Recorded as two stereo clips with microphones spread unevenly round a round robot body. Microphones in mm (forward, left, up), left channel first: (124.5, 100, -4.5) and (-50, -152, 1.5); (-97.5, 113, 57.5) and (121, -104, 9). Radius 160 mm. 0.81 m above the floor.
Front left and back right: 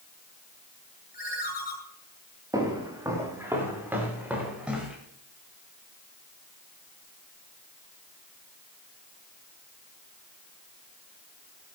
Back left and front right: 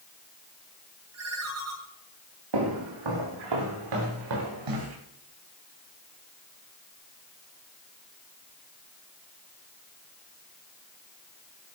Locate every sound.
1.1 s a ringtone: 5° right, 8 m
2.5 s footsteps: 45° right, 7 m; by 5.0 s 40° right, 7.5 m